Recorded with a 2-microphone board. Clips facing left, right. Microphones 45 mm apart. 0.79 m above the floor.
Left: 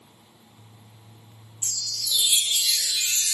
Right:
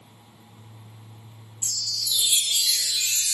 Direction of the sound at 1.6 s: 35° left (ahead or behind).